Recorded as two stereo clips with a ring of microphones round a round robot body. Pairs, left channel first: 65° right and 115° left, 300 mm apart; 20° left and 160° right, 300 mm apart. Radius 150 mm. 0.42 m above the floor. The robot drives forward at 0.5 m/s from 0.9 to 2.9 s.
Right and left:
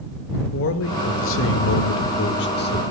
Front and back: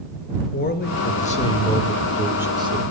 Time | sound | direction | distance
0.5 | a man speaking | 30° right | 1.2 m